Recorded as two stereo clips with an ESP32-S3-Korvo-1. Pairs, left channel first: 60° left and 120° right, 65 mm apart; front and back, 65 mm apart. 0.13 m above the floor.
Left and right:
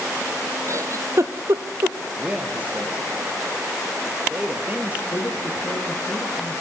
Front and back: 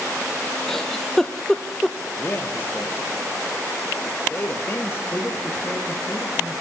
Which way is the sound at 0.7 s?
85° right.